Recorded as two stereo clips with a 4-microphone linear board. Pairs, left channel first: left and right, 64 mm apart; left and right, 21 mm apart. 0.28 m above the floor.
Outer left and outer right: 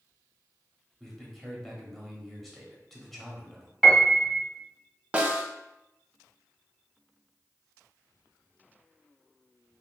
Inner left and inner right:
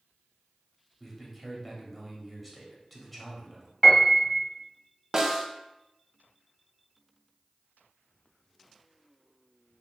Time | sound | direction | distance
1.0 | a man speaking | centre (ahead or behind) | 1.0 m
3.8 | a piano | centre (ahead or behind) | 1.2 m
5.1 | a snare drum | 20° right (ahead or behind) | 0.6 m